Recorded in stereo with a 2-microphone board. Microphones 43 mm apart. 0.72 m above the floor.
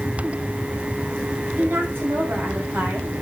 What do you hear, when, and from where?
1.6 s a woman speaking: 60° right (ahead or behind), 5 m